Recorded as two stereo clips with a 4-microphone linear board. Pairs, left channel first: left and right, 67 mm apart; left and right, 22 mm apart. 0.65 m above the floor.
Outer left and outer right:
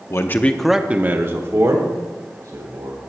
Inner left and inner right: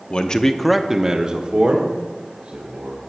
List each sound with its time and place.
0.1 s a man speaking: 45° left (ahead or behind), 0.8 m; by 3.1 s 65° right (ahead or behind), 2.5 m